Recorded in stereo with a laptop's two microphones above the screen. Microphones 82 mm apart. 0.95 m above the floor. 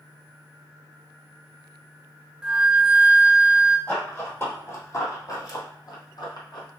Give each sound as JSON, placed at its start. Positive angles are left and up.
{"t": 2.4, "sound": "a flute", "side_deg": -10, "distance_m": 0.6}
{"t": 3.9, "sound": "running footsteps", "side_deg": 25, "distance_m": 1.8}